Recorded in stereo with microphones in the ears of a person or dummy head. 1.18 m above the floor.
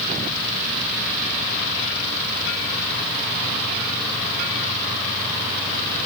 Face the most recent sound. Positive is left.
No sound to turn to.